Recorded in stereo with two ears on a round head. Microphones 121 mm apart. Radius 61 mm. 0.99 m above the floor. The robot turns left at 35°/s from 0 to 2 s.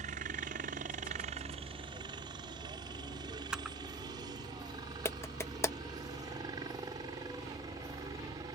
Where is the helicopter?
55° right (ahead or behind); by 8.6 s 30° right (ahead or behind).